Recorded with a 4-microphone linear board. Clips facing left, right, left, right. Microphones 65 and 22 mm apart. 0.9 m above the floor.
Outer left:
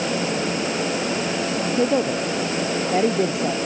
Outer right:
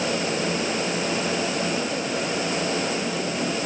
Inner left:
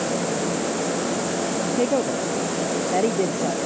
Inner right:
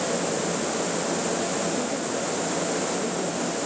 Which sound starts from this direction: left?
A woman speaking, at 1.8 s.